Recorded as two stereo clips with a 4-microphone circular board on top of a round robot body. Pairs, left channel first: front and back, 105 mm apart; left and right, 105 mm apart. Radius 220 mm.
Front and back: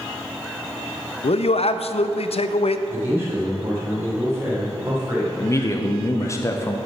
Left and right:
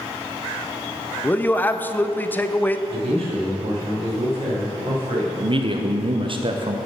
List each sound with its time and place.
1.2 s a man speaking: 20° left, 0.6 m
2.9 s a man speaking: 110° right, 3 m
5.4 s a man speaking: 60° right, 0.8 m